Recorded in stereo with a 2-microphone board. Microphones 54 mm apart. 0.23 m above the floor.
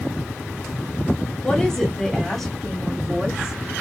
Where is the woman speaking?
20° left (ahead or behind), 1.6 m; by 3.6 s 15° right (ahead or behind), 1.7 m.